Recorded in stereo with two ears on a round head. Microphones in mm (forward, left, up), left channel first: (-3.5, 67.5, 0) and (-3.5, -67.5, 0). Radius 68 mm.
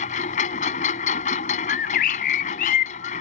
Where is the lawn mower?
50° left (ahead or behind).